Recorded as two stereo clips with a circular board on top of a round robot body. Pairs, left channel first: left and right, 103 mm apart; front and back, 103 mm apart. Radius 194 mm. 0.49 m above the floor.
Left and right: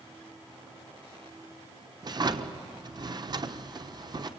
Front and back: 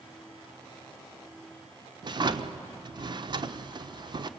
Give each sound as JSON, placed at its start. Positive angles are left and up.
{"t": 2.0, "sound": "a drawer", "azimuth_deg": -135, "distance_m": 1.0}